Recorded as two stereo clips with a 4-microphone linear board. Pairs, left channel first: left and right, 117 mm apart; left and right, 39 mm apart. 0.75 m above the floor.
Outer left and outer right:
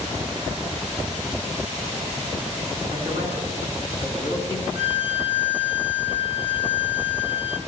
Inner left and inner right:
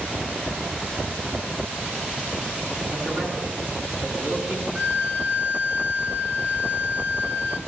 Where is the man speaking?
65° right (ahead or behind), 9 m; by 4.7 s 70° right (ahead or behind), 7.5 m.